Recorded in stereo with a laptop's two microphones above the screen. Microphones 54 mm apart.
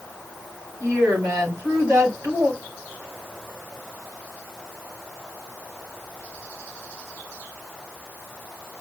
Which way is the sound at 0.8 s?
75° right (ahead or behind).